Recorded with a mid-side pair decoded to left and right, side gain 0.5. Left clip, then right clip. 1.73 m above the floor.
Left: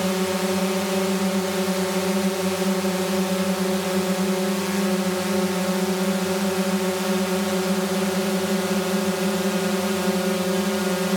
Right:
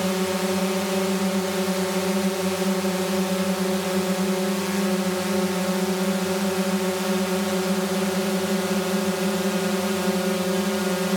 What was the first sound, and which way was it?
A drone, 5° left.